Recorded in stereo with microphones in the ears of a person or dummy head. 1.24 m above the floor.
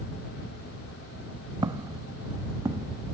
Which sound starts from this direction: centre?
Footsteps, at 1.6 s.